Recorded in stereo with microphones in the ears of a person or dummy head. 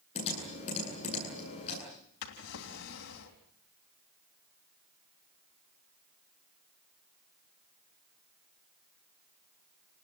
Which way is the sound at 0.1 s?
30° left (ahead or behind).